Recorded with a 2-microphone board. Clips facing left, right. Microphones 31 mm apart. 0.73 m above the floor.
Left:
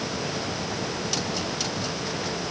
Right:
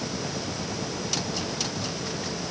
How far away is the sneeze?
I don't hear a sneeze.